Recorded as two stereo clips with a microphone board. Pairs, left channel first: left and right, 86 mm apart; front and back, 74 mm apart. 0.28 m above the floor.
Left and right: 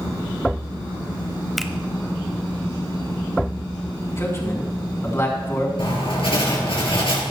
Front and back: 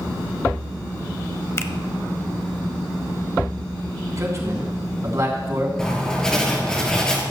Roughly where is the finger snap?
Ahead.